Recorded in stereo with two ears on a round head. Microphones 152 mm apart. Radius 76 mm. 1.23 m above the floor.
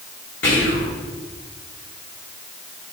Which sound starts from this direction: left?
Whispering, at 0.4 s.